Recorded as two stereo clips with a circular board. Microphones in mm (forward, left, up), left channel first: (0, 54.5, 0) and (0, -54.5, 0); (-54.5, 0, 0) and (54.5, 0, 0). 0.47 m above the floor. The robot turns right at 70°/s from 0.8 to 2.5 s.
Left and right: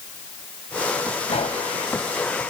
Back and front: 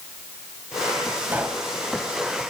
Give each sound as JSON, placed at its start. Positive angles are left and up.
{"t": 1.3, "sound": "a pop", "azimuth_deg": 75, "distance_m": 1.8}